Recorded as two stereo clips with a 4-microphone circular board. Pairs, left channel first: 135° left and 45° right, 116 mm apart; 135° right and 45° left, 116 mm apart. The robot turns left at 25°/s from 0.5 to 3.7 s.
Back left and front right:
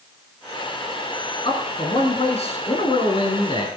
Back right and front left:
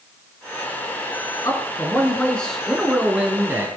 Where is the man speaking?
165° left, 3 m; by 3.7 s 110° left, 3 m.